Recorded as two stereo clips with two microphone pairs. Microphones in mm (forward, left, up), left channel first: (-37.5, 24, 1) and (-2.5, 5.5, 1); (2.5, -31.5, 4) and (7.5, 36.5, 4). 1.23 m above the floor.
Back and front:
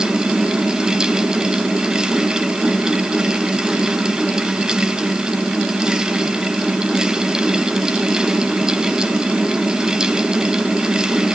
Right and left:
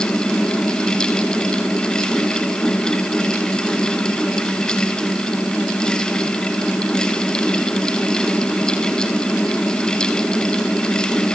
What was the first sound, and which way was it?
Only background noise.